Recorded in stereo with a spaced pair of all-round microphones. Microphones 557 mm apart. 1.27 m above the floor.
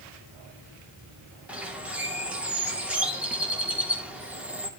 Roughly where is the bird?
Centre.